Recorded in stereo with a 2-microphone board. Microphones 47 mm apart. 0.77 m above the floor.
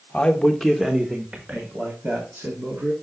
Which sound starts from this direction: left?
A man speaking, at 0.1 s.